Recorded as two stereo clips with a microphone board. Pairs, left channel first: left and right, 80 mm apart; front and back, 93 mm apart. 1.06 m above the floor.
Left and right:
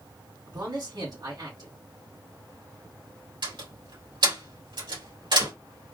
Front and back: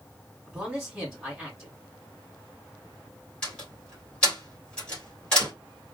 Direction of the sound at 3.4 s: 80° right.